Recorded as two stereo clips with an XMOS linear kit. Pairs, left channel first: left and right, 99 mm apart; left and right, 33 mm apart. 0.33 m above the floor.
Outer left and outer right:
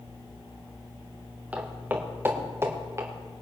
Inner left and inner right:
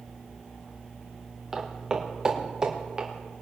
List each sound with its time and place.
1.5 s footsteps: 15° right (ahead or behind), 3 m; by 3.1 s 30° right (ahead or behind), 3 m